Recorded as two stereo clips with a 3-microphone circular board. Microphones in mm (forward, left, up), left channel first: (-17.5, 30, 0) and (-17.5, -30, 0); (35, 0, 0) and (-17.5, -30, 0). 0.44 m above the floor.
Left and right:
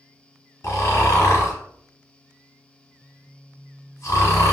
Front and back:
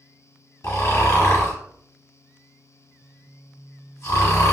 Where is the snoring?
60° left, 1.0 m.